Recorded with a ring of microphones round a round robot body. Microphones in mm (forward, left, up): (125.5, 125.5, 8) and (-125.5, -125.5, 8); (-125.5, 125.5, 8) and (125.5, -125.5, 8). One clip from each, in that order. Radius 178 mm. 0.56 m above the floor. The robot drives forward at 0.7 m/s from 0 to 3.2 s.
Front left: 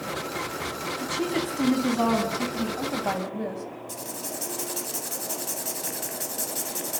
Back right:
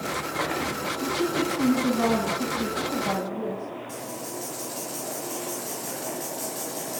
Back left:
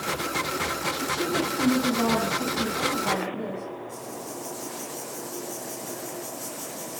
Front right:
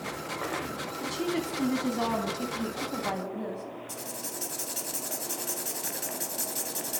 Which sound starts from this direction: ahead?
Writing, at 3.9 s.